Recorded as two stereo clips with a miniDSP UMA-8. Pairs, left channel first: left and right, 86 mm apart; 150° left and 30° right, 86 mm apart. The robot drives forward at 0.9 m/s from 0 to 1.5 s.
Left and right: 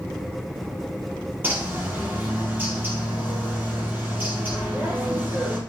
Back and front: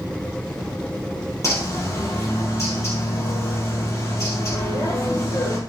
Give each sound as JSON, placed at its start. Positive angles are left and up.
{"t": 1.4, "sound": "a bird", "azimuth_deg": -155, "distance_m": 5.0}